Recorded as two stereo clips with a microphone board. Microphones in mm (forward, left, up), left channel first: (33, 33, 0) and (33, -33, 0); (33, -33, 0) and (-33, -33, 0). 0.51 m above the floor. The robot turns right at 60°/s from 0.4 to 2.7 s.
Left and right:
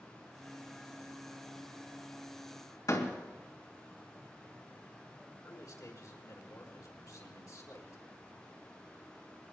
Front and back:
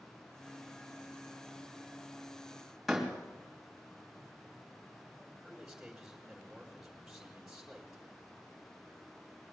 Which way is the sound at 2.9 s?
90° left.